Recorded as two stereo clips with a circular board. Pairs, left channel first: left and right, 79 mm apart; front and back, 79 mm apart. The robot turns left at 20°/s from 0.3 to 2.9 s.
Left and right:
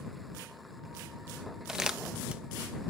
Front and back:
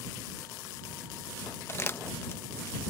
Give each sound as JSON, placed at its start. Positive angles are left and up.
{"t": 1.7, "sound": "crumpling", "azimuth_deg": -10}